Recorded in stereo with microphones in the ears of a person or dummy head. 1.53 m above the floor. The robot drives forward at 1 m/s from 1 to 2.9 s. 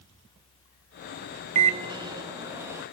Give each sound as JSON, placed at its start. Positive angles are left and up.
{"t": 1.6, "sound": "a microwave", "side_deg": -30, "distance_m": 0.7}